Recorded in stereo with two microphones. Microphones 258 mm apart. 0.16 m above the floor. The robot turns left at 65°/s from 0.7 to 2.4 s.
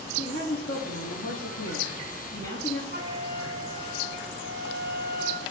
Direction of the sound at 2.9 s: 40° right (ahead or behind).